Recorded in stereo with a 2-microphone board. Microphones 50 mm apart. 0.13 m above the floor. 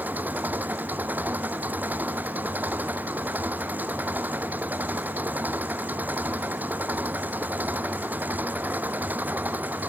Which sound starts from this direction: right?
An engine running, at 0.0 s.